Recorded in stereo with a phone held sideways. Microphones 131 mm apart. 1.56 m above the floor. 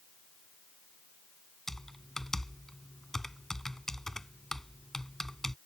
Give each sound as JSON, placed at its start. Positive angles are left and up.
{"t": 1.7, "sound": "typing on a keyboard", "side_deg": 5}